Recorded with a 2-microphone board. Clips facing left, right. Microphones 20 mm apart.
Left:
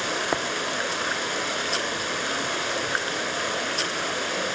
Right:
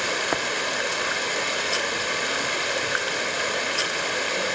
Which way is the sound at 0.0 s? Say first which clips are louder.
Right 1 dB; 5° right (ahead or behind).